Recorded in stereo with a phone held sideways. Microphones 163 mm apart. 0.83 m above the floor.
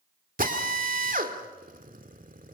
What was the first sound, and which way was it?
A drill, 65° right (ahead or behind).